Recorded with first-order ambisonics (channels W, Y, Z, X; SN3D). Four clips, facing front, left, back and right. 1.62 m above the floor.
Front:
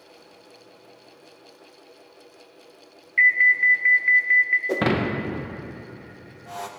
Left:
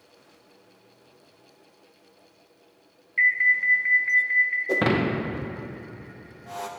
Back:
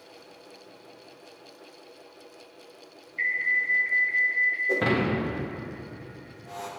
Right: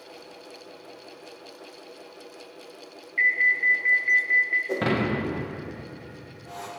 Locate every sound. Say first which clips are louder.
3.2 s an alarm: left 1 dB, front 9 dB; 5° left, 0.8 m
4.7 s breaking glass: left 2 dB, front 1 dB; 30° left, 0.7 m